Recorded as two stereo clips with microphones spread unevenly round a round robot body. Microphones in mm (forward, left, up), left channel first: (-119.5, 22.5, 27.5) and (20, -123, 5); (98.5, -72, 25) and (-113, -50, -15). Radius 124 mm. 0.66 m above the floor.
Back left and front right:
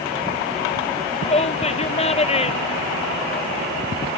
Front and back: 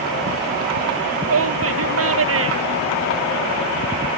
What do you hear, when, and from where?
1.2 s a shout: 165° right